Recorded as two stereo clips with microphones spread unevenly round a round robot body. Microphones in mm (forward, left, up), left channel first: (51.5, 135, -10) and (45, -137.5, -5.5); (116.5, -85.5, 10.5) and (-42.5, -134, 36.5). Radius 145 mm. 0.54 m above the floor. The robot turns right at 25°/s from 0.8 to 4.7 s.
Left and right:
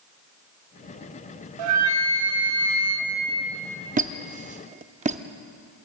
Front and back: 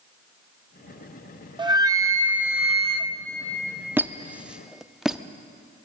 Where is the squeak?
80° right, 0.7 m; by 5.2 s 60° right, 0.7 m.